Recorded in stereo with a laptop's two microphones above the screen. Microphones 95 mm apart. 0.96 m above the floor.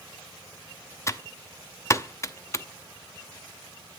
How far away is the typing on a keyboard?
About 0.7 m.